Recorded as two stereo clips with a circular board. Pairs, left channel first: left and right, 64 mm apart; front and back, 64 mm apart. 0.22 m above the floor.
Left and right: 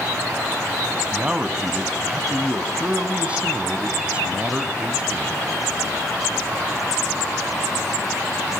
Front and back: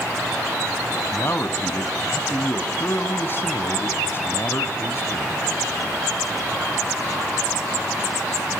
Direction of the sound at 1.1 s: 30° right.